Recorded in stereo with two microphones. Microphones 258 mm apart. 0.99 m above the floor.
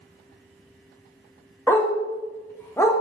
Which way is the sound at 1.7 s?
10° left (ahead or behind).